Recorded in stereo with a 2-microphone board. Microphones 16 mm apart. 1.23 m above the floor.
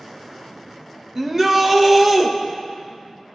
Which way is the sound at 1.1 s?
25° right (ahead or behind).